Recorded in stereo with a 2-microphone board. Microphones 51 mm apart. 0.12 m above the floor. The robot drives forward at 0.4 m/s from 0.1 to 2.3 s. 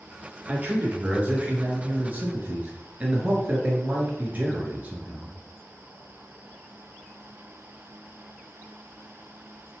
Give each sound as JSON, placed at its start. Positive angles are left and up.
{"t": 0.5, "sound": "a man speaking", "side_deg": -35, "distance_m": 1.4}